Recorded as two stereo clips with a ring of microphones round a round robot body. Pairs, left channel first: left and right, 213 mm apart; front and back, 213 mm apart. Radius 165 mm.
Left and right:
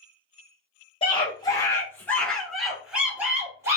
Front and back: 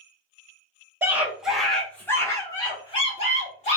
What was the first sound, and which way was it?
A scream, 115° left.